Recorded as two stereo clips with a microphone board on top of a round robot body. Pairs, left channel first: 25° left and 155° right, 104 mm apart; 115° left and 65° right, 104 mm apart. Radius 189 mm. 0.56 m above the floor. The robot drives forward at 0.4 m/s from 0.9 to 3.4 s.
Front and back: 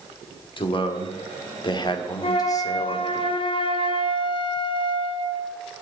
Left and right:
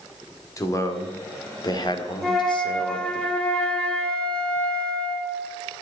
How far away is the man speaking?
About 2 m.